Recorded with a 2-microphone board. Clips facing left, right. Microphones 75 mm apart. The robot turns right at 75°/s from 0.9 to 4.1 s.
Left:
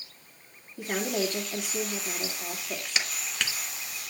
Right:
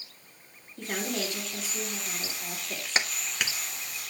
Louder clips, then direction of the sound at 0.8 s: Left 3 dB; 15° left.